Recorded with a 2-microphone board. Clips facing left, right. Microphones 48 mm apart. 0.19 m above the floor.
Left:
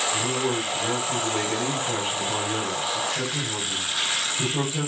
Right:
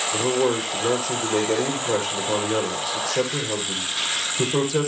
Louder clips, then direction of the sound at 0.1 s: Right 4 dB; 80° right.